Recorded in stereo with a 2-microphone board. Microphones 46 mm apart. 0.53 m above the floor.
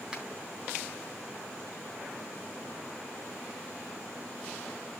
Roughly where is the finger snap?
Centre.